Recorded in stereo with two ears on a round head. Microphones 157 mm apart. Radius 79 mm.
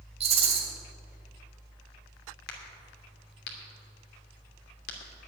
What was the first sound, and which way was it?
A rattle, 35° right (ahead or behind).